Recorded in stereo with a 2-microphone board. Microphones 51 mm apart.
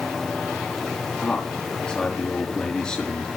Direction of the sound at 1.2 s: 15° left (ahead or behind).